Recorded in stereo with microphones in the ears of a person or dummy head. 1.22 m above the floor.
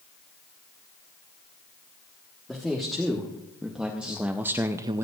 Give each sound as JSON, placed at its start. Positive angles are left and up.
{"t": 2.5, "sound": "a man speaking", "side_deg": 0, "distance_m": 1.6}